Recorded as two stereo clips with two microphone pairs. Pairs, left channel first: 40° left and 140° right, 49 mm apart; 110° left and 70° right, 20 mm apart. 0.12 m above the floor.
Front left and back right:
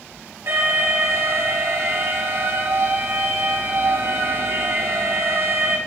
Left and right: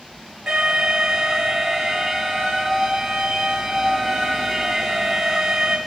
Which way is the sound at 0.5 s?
135° right.